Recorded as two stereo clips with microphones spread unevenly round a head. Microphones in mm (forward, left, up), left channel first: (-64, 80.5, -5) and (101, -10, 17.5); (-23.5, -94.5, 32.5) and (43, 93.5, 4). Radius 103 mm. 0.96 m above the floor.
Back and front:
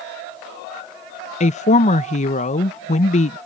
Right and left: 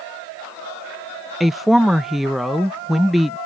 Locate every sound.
1.4 s a woman speaking: 150° left